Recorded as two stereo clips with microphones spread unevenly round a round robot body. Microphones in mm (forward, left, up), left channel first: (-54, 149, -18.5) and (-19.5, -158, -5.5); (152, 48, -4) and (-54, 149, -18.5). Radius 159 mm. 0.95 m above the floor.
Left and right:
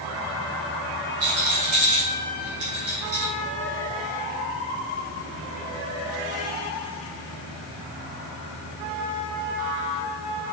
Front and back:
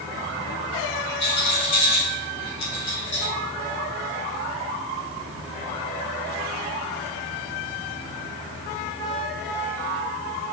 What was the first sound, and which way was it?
A rattle, 45° right.